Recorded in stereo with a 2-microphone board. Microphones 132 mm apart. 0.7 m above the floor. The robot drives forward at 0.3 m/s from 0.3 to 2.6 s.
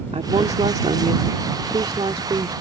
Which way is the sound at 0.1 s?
55° right (ahead or behind).